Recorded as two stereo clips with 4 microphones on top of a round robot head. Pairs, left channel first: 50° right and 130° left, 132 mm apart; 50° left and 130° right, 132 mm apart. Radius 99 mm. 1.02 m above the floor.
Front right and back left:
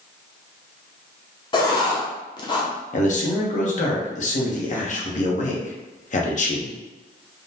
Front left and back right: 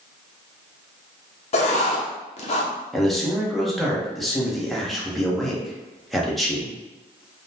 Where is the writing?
5° left, 0.6 m.